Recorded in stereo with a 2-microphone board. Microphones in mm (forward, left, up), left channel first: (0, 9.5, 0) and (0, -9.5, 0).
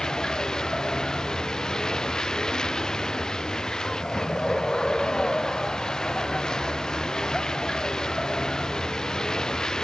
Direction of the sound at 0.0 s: 35° left (ahead or behind).